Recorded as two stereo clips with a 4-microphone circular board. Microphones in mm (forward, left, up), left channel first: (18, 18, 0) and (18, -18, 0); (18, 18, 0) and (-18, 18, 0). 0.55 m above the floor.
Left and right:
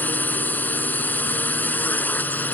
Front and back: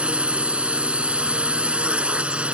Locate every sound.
0.0 s a drone: 125° left